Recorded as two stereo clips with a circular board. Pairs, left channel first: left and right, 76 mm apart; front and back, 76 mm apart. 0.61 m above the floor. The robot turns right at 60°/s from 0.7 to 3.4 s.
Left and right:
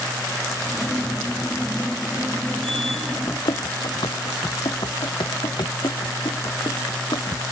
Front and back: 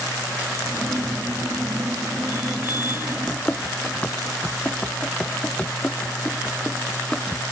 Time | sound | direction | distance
3.3 | running footsteps | 65° left | ?